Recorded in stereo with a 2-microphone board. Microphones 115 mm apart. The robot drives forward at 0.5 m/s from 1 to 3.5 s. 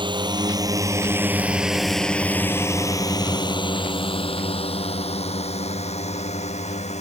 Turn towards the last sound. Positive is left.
turn(degrees=70)  # may be behind; listen again after turning